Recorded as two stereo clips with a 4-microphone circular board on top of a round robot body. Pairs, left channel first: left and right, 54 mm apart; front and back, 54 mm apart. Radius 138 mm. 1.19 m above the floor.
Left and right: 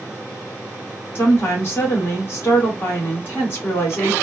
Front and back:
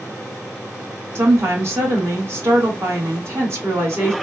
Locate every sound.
1.1 s a woman speaking: 135° left, 1.8 m